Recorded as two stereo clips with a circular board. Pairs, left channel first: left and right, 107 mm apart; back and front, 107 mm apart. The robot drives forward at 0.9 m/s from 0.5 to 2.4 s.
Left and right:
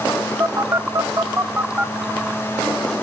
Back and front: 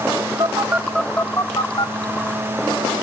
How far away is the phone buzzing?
About 0.7 m.